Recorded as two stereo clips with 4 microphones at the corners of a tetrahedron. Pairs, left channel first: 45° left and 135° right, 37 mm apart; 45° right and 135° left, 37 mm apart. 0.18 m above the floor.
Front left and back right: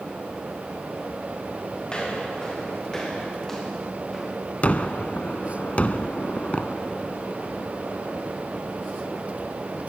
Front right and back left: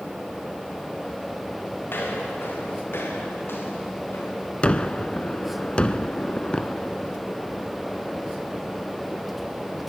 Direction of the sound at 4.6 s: 5° left.